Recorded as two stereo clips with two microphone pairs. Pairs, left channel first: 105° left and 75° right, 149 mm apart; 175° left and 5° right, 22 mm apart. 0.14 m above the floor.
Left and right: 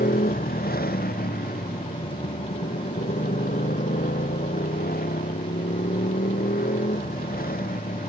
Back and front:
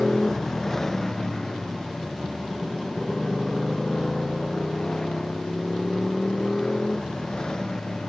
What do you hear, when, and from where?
0.0 s a motorcycle: 95° left; by 8.1 s 115° left